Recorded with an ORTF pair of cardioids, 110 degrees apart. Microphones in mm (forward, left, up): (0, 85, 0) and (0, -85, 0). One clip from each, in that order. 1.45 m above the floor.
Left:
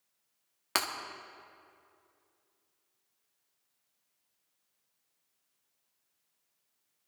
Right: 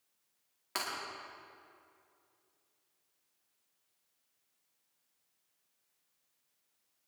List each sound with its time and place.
0.8 s breaking glass: 55° left, 1.9 m